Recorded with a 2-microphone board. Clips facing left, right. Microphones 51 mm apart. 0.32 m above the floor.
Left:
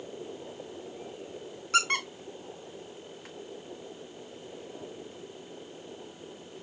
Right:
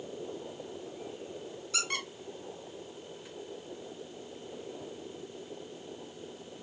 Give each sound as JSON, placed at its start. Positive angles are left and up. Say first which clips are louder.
{"t": 1.7, "sound": "a squeak", "louder": "left 9 dB", "side_deg": 50, "distance_m": 1.3}